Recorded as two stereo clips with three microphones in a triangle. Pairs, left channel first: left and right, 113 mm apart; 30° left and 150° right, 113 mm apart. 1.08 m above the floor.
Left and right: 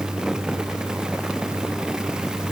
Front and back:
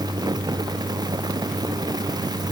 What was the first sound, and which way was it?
Only background noise.